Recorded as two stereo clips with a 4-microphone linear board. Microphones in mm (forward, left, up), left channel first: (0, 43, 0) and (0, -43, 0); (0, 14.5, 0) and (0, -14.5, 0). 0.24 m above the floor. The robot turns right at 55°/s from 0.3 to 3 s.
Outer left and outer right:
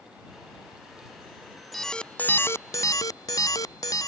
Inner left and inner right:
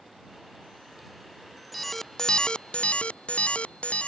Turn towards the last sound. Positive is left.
turn(degrees=70)